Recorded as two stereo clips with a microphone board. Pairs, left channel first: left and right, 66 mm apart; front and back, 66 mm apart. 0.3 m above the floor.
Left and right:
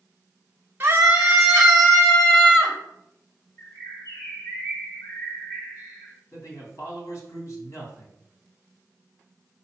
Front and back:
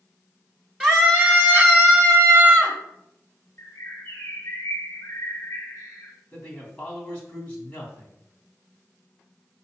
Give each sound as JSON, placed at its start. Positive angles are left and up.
{"t": 0.8, "sound": "a scream", "azimuth_deg": -100, "distance_m": 1.1}
{"t": 3.6, "sound": "a bird", "azimuth_deg": 50, "distance_m": 2.0}
{"t": 6.3, "sound": "a man speaking", "azimuth_deg": 65, "distance_m": 2.5}